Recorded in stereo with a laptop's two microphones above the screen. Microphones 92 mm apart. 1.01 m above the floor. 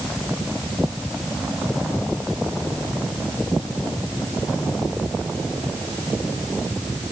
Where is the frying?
I don't hear frying.